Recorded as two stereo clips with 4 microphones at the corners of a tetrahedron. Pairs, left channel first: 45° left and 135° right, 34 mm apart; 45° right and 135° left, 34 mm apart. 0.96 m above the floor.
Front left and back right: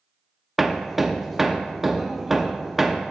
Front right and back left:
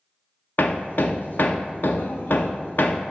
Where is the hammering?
50° right, 0.6 m.